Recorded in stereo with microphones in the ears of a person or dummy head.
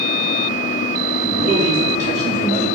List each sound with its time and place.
1.2 s a man speaking: 45° right (ahead or behind), 1.8 m